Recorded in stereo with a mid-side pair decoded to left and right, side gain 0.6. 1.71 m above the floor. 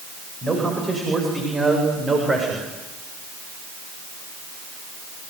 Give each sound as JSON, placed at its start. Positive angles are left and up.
{"t": 0.4, "sound": "a man speaking", "azimuth_deg": -20, "distance_m": 9.0}